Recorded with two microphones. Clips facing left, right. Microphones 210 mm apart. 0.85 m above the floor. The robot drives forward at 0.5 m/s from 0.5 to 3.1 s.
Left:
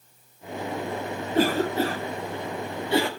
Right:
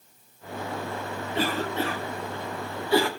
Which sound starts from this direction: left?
A cough, at 1.3 s.